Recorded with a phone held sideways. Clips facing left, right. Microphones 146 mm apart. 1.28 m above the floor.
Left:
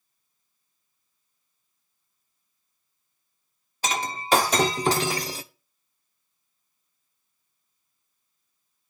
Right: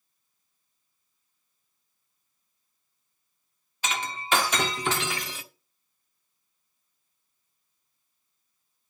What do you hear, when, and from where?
3.8 s breaking glass: 35° left (ahead or behind), 1.0 m